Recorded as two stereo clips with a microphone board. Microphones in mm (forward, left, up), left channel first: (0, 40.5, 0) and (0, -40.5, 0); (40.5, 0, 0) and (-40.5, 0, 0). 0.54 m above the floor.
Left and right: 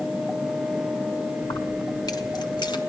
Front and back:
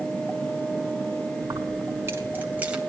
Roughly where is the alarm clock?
I don't hear an alarm clock.